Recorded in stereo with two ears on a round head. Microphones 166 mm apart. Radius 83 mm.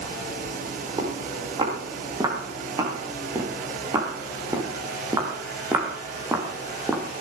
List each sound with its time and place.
1.0 s footsteps: 25° right (ahead or behind), 8 m; by 7.0 s 10° right (ahead or behind), 3 m